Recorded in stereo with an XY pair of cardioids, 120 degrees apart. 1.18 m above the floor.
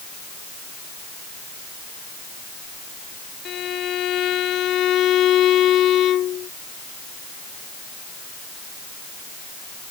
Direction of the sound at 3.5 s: 60° left.